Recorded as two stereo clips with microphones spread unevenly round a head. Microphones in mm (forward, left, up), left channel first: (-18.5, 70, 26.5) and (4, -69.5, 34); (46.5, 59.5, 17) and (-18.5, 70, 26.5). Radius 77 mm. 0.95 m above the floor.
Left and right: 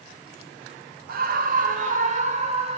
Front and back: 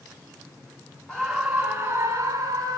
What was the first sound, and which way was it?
A scream, 85° right.